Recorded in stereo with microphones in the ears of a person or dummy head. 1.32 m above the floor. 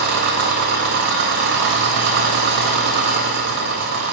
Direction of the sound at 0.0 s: 60° right (ahead or behind).